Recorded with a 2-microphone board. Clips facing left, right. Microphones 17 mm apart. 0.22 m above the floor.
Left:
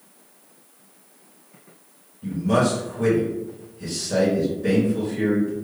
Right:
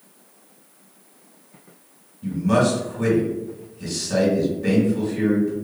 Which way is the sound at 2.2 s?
30° right (ahead or behind).